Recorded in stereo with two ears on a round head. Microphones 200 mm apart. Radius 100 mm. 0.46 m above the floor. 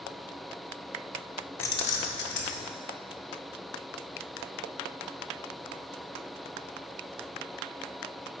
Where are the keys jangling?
10° left (ahead or behind), 0.5 m; by 2.7 s 60° left (ahead or behind), 1.1 m.